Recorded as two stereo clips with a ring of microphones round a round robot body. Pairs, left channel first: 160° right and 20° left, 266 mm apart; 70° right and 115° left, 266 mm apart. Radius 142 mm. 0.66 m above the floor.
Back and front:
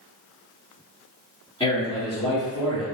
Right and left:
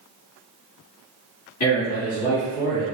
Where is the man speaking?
90° right, 1.4 m.